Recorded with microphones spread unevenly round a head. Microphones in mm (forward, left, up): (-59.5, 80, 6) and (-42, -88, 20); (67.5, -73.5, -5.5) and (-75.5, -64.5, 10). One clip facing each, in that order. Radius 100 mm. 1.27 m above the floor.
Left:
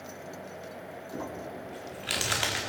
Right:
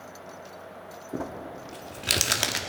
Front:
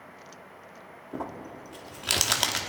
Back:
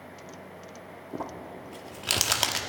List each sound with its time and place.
1.1 s crumpling: 100° right, 1.1 m